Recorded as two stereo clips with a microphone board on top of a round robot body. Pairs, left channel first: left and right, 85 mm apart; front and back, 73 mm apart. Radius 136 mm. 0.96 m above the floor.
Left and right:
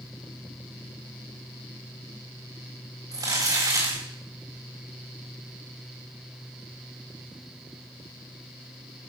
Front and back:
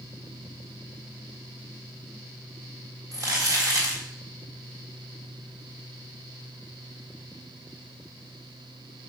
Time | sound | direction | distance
3.1 | crumpling | 140° right | 3.5 m